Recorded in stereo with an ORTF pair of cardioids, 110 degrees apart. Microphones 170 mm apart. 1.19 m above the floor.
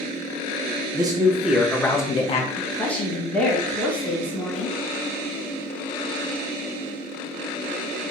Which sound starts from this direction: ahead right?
A man speaking, at 0.9 s.